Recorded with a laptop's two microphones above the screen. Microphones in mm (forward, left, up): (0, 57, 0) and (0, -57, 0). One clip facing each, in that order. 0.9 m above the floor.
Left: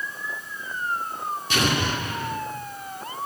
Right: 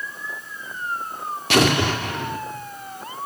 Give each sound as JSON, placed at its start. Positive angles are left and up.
{"t": 1.5, "sound": "an explosion", "side_deg": -75, "distance_m": 1.9}